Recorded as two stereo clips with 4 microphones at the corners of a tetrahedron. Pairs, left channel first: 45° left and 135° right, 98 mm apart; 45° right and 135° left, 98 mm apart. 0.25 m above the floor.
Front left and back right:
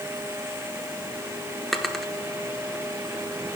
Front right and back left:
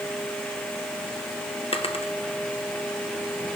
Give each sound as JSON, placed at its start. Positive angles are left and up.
{"t": 1.7, "sound": "a drawer", "azimuth_deg": -40, "distance_m": 1.0}